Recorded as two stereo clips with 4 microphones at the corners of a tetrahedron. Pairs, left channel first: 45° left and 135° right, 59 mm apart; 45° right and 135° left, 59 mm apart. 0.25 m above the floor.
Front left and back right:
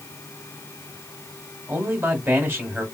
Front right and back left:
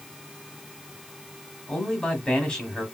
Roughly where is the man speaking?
Right.